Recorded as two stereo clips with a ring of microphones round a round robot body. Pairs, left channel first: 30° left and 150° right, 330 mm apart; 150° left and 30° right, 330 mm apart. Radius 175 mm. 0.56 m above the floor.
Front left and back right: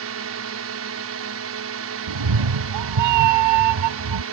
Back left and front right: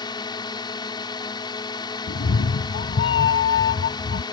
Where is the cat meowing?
150° right.